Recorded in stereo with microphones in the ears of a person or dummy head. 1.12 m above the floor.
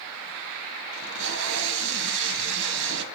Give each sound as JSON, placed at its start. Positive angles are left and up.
{"t": 0.9, "sound": "tape being pulled", "side_deg": -65, "distance_m": 1.7}